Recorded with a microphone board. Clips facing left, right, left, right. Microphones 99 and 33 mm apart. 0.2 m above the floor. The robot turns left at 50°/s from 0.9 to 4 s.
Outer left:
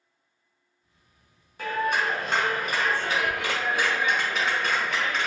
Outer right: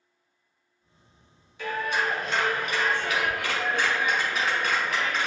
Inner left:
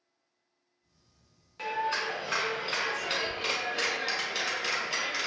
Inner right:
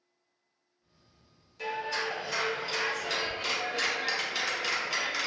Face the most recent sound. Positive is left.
turn(degrees=0)